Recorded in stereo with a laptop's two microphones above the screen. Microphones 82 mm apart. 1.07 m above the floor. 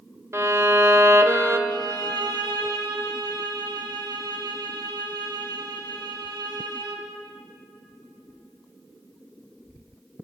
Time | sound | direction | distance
0.3 | a violin | 35° right (ahead or behind) | 0.6 m
1.7 | a violin | 65° right (ahead or behind) | 1.0 m